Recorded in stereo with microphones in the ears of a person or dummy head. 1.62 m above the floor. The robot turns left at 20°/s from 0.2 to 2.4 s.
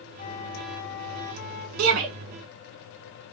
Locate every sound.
0.2 s a flute: 40° left (ahead or behind), 1.5 m; by 1.7 s 70° left (ahead or behind), 1.5 m
1.8 s a shout: 70° right (ahead or behind), 1.6 m; by 2.1 s 65° right (ahead or behind), 1.6 m